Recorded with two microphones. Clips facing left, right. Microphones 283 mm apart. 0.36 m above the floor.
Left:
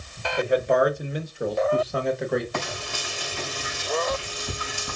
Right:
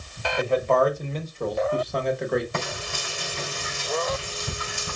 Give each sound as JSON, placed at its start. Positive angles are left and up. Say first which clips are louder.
{"t": 0.4, "sound": "a man speaking", "louder": "left 1 dB", "side_deg": 20, "distance_m": 1.0}
{"t": 2.5, "sound": "frying", "louder": "even", "side_deg": -25, "distance_m": 3.0}